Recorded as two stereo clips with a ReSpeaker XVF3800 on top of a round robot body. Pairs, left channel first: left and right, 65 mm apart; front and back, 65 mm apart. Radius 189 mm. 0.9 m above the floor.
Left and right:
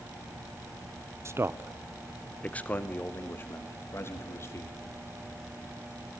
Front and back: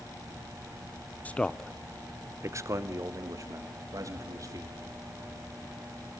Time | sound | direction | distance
1.2 | a man speaking | 60° right | 1.0 m